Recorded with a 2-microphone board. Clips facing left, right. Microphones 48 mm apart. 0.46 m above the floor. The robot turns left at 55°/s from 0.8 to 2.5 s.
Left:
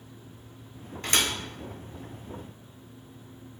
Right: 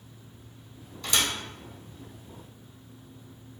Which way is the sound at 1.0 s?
45° left (ahead or behind).